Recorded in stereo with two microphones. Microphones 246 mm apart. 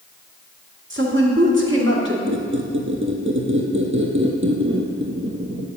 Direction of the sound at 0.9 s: 55° right (ahead or behind).